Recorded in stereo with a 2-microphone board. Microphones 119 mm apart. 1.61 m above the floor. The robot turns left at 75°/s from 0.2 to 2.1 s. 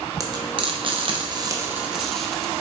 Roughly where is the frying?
Right.